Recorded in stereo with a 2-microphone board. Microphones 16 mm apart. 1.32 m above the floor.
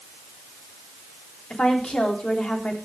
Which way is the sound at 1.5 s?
70° left (ahead or behind).